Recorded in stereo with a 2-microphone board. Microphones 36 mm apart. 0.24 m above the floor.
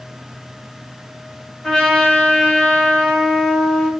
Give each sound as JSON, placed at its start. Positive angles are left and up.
{"t": 1.6, "sound": "a trumpet", "side_deg": 20, "distance_m": 1.2}